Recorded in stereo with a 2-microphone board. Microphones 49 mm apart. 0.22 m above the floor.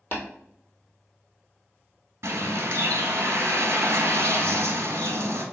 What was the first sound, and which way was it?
Tapping, 35° left (ahead or behind).